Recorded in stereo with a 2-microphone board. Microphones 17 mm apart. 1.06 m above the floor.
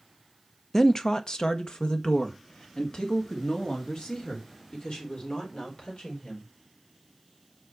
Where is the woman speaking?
20° left (ahead or behind), 0.5 m; by 6.5 s 70° left (ahead or behind), 4.5 m.